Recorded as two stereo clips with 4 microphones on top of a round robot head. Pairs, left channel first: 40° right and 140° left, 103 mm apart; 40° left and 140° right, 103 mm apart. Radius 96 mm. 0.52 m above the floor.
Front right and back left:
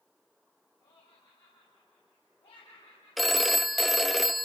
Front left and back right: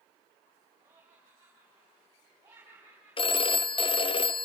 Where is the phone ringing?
50° left, 0.6 m.